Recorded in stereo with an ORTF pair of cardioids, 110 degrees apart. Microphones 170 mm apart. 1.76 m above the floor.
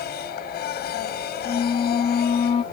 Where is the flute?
35° left.